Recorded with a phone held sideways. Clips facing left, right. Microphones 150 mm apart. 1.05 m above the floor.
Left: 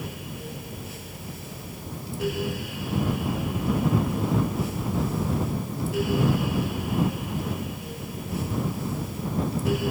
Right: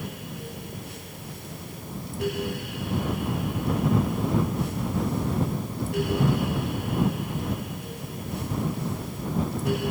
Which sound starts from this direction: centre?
A fan, at 0.0 s.